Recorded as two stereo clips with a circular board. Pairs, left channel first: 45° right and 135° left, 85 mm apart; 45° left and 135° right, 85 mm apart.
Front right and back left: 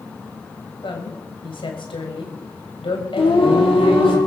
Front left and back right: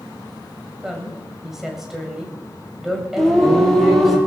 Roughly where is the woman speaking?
Ahead right.